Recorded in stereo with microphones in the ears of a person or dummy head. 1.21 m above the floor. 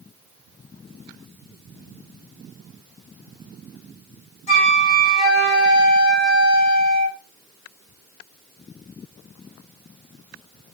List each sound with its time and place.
4.5 s a flute: 40° left (ahead or behind), 1.0 m